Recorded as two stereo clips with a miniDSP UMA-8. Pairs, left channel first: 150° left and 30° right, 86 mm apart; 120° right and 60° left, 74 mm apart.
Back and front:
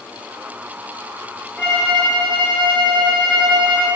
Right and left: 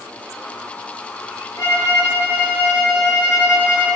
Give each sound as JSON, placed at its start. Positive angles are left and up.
{"t": 1.6, "sound": "a violin", "azimuth_deg": -110, "distance_m": 1.3}